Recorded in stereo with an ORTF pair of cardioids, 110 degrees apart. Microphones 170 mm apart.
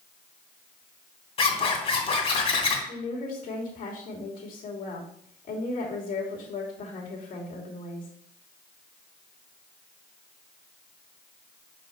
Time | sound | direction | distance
1.4 | a zipper | 35° left | 2.5 m
2.9 | a woman speaking | 55° left | 3 m